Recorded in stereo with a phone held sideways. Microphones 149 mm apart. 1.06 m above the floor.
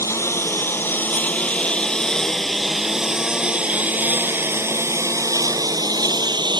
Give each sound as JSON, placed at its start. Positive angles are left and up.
{"t": 0.0, "sound": "a lawn mower", "side_deg": 20}